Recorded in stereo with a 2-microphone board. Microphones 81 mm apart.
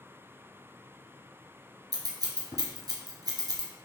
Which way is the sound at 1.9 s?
55° right (ahead or behind).